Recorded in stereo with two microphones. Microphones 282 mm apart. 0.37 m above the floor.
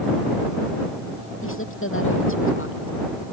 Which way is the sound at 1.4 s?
50° left (ahead or behind).